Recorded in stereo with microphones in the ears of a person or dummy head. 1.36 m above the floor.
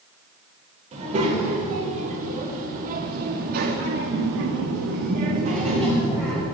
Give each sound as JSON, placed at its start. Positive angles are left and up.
{"t": 0.9, "sound": "a child speaking", "side_deg": -40, "distance_m": 3.0}